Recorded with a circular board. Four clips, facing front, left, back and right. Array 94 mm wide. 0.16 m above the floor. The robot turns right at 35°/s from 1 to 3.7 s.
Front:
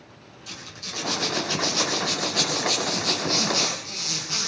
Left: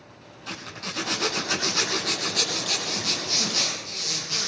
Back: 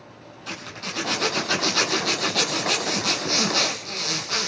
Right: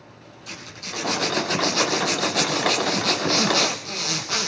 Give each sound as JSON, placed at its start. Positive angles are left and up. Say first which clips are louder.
{"t": 0.5, "sound": "a zipper", "louder": "left 1 dB, back 6 dB", "azimuth_deg": 150, "distance_m": 3.5}